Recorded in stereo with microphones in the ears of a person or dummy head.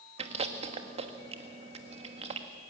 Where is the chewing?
40° right (ahead or behind), 1.2 m.